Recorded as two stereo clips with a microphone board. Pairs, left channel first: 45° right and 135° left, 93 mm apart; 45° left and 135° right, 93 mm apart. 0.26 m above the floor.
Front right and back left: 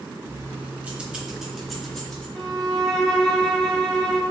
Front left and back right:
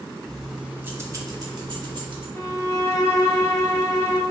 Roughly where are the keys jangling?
Behind left.